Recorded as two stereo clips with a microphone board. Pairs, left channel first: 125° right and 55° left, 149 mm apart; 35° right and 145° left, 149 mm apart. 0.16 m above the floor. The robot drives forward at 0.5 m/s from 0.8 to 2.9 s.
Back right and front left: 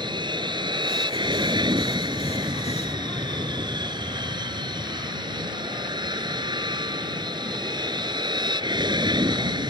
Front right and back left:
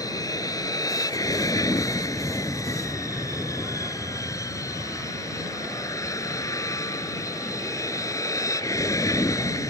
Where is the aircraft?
15° left; by 9.7 s 20° left.